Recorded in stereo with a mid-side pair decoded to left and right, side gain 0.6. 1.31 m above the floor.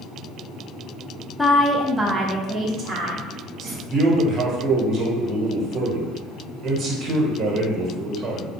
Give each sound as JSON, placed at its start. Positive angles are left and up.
{"t": 1.4, "sound": "a woman speaking", "azimuth_deg": 15, "distance_m": 0.6}
{"t": 3.9, "sound": "a man speaking", "azimuth_deg": -45, "distance_m": 1.2}